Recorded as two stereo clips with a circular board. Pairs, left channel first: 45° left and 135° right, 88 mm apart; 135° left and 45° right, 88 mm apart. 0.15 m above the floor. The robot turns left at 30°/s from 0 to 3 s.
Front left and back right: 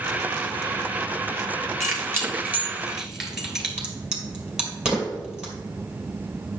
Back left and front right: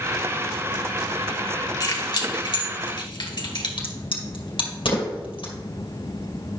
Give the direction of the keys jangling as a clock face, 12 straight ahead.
6 o'clock.